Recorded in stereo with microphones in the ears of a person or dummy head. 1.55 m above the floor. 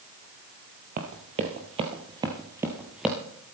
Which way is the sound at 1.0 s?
40° right (ahead or behind).